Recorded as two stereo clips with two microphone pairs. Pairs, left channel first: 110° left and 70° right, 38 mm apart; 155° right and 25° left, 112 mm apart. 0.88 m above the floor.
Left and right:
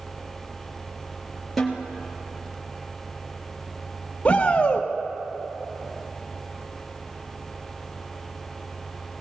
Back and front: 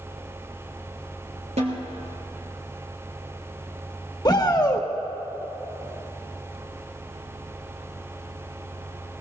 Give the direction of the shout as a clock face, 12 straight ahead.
7 o'clock.